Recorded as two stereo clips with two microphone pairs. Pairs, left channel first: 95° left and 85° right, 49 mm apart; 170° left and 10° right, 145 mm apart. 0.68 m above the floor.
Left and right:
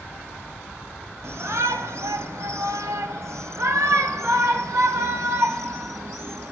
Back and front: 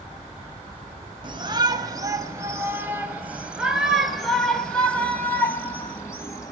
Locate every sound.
1.2 s a shout: 65° right, 3.5 m; by 6.5 s 120° right, 4 m